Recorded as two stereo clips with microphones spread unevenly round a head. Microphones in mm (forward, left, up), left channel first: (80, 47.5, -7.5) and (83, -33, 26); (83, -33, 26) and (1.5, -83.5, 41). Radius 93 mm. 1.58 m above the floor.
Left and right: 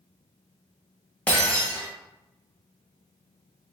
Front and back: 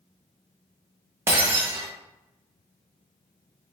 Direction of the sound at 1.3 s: 165° right.